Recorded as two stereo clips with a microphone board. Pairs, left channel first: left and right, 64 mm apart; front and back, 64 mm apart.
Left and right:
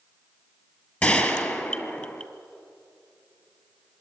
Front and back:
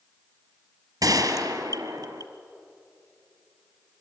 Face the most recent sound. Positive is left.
turn(degrees=155)